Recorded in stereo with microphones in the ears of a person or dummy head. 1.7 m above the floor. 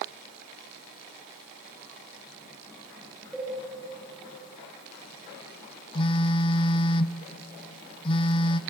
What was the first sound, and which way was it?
A cowbell, 5° left (ahead or behind).